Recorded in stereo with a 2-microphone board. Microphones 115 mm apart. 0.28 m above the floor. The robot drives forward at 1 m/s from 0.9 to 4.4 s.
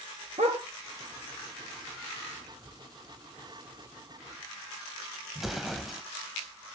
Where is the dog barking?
85° right, 1.9 m.